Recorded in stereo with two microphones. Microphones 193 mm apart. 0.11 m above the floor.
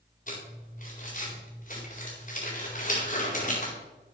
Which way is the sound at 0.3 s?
40° left (ahead or behind).